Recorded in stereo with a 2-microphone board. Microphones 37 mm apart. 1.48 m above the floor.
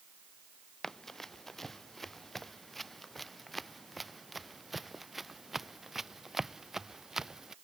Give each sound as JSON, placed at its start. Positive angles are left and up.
{"t": 0.8, "sound": "running footsteps", "side_deg": 10}